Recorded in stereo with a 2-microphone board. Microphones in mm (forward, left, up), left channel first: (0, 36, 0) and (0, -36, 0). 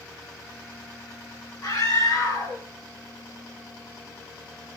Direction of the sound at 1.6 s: 55° left (ahead or behind).